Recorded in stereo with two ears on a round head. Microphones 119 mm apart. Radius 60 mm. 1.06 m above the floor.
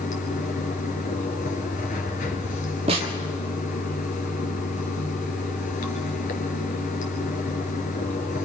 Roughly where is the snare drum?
Right.